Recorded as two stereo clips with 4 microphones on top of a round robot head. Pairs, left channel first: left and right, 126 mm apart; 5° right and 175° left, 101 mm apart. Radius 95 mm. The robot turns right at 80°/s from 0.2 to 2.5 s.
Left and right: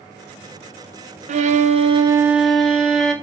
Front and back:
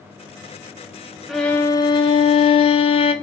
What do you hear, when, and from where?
1.3 s a violin: 95° right, 0.8 m; by 3.1 s straight ahead, 0.8 m